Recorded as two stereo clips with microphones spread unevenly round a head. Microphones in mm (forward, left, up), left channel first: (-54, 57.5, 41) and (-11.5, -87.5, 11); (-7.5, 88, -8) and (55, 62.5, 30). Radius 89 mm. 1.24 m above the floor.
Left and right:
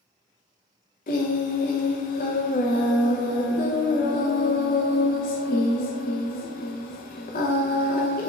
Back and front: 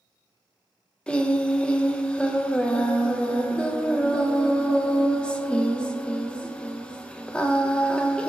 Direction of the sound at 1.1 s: 70° left.